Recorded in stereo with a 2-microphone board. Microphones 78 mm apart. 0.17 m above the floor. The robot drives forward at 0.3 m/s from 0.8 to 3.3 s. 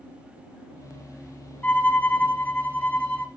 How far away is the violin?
About 1.5 m.